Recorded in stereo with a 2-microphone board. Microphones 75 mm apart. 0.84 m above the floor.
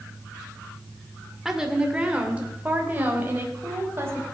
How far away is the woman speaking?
About 2.5 m.